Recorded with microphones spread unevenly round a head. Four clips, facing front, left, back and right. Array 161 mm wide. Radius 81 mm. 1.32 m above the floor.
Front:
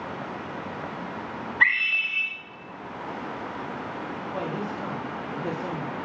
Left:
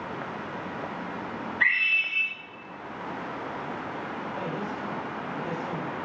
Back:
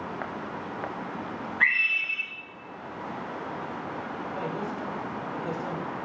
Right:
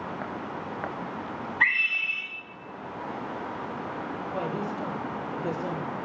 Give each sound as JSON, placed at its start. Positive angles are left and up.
{"t": 1.6, "sound": "a scream", "azimuth_deg": -30, "distance_m": 5.0}
{"t": 4.3, "sound": "a woman speaking", "azimuth_deg": -35, "distance_m": 2.0}